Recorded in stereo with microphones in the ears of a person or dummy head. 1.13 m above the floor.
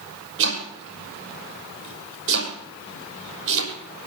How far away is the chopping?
About 5.5 m.